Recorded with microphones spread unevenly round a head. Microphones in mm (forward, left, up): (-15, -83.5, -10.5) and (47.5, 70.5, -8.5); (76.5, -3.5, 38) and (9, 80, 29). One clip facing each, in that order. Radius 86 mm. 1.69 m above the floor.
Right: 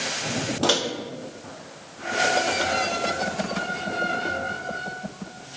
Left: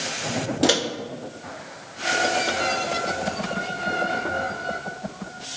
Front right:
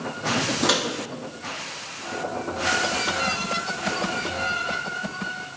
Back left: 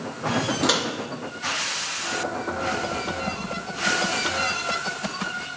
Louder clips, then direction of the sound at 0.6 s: Left 3 dB, front right 1 dB; 30° left.